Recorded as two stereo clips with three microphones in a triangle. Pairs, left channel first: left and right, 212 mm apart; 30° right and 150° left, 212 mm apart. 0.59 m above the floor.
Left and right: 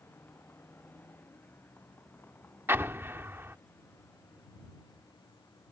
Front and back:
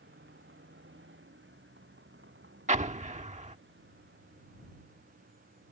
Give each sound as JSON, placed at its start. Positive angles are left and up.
{"t": 0.0, "sound": "a vehicle", "azimuth_deg": 170}
{"t": 2.7, "sound": "an explosion", "azimuth_deg": -165}